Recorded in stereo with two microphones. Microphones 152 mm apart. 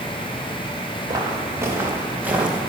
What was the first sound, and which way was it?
Footsteps, 20° right (ahead or behind).